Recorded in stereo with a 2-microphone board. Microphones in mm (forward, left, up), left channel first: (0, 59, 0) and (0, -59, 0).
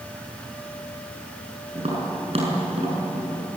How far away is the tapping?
About 7 m.